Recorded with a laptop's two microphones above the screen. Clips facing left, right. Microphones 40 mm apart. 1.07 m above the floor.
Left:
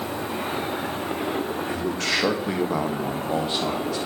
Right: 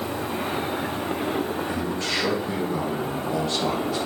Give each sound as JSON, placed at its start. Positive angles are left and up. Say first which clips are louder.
{"t": 1.7, "sound": "a man speaking", "louder": "left 1 dB", "side_deg": 70, "distance_m": 2.5}